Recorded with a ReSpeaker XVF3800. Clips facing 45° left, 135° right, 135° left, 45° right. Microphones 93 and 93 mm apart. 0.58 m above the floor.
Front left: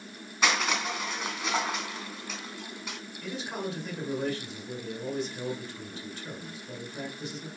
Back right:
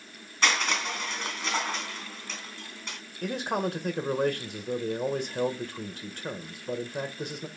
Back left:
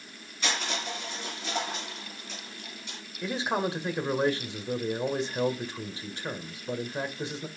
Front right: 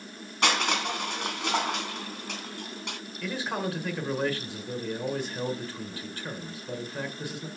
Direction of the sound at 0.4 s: 35° right.